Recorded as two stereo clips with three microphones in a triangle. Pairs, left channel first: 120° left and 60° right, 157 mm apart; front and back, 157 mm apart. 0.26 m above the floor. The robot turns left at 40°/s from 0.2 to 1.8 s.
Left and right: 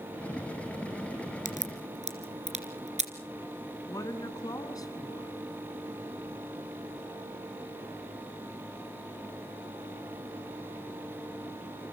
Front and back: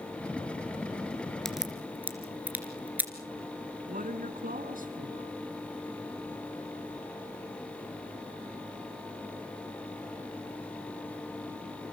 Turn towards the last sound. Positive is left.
turn(degrees=-175)